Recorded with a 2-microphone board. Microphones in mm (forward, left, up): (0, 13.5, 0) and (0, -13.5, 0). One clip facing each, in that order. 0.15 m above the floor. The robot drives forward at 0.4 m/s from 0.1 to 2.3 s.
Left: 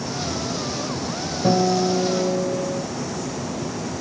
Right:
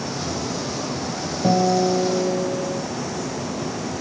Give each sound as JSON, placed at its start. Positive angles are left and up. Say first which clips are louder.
{"t": 1.4, "sound": "a guitar", "louder": "right 1 dB", "side_deg": -10, "distance_m": 2.5}